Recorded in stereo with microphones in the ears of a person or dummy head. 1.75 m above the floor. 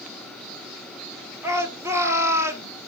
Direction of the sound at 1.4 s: 15° right (ahead or behind).